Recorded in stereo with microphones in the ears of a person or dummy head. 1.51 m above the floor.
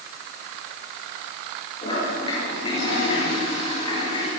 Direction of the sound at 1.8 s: 30° left (ahead or behind).